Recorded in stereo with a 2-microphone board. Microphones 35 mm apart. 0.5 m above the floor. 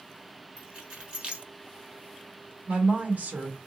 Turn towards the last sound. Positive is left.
turn(degrees=-50)  # may be behind; listen again after turning